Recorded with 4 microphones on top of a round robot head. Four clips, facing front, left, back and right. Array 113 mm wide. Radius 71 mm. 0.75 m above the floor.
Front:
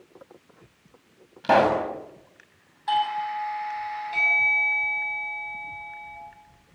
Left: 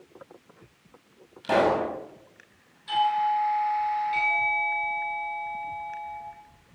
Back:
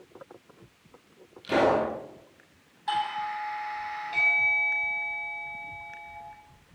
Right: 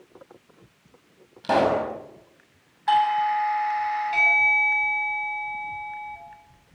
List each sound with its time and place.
1.4 s a pop: 15° right, 6.5 m
2.9 s a doorbell: 85° right, 7 m